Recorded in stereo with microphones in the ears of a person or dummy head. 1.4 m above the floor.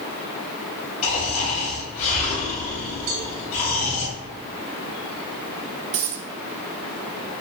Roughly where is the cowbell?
Right.